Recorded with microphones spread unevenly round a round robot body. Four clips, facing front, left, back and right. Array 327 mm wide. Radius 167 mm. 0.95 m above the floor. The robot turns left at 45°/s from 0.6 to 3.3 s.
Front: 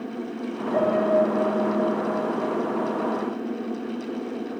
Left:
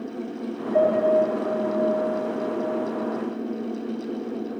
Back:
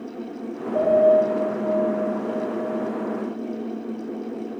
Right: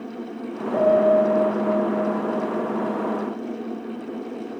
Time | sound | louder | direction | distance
0.7 | a piano | right 2 dB, back 4 dB | 55° right | 2.5 m